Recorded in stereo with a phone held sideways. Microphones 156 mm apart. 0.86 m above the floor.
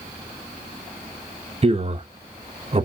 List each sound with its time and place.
1.6 s a man speaking: 40° right (ahead or behind), 0.8 m